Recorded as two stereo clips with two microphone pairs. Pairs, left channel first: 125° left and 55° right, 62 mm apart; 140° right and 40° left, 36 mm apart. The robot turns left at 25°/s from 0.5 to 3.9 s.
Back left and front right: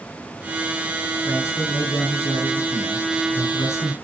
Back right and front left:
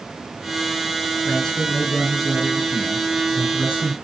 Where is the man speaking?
160° left, 3 m; by 3.9 s 95° left, 3 m.